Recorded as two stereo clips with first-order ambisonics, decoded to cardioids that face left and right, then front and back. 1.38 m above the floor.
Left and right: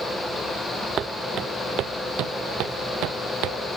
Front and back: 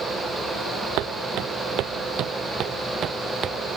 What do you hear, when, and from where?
1.0 s footsteps: 145° right; by 3.6 s 120° right